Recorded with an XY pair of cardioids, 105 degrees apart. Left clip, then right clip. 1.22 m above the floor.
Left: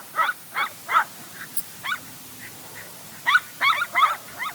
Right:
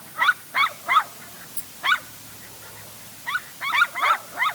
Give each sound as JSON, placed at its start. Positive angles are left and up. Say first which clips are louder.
{"t": 1.5, "sound": "a rattle", "louder": "left 2 dB", "azimuth_deg": 25, "distance_m": 5.5}